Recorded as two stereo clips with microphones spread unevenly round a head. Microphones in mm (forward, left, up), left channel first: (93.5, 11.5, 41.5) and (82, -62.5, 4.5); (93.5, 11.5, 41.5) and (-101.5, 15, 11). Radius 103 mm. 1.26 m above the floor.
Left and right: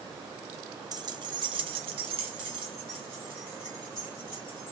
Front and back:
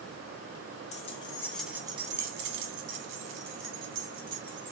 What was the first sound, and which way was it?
Keys jangling, 55° right.